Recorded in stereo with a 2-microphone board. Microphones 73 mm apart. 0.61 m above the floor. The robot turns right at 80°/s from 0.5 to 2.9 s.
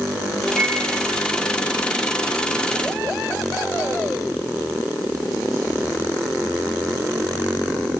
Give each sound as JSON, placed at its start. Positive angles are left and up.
{"t": 0.5, "sound": "a microwave", "side_deg": -35, "distance_m": 9.0}